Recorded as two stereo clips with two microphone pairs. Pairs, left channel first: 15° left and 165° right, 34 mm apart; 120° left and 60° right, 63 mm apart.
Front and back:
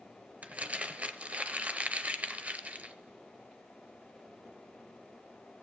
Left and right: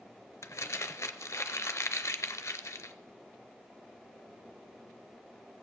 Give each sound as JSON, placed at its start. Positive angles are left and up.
{"t": 0.4, "sound": "crumpling", "azimuth_deg": 155, "distance_m": 0.6}